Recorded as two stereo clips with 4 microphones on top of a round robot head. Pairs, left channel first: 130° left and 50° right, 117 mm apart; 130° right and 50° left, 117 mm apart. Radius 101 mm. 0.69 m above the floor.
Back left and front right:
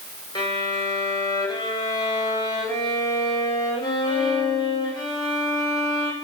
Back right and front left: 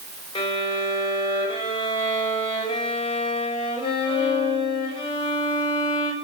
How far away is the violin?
About 4.5 m.